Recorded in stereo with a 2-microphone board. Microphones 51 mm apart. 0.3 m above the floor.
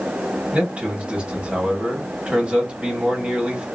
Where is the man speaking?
25° right (ahead or behind), 1.5 m.